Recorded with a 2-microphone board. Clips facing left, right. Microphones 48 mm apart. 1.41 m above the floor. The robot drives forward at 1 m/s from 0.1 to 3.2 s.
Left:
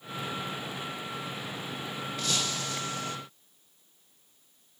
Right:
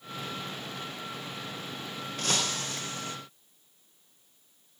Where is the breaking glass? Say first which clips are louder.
Right 2 dB; 45° right (ahead or behind), 3 m; by 3.2 s 35° right (ahead or behind), 3.5 m.